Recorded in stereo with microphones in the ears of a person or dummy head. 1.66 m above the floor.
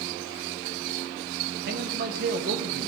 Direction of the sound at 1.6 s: 55° right (ahead or behind).